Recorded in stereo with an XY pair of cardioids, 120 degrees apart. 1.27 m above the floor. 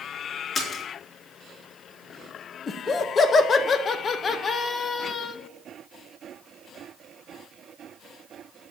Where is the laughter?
40° left, 1.6 m.